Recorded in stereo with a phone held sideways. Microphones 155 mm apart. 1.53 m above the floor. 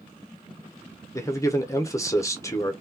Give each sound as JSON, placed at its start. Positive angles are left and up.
{"t": 1.1, "sound": "a man speaking", "side_deg": 20, "distance_m": 1.0}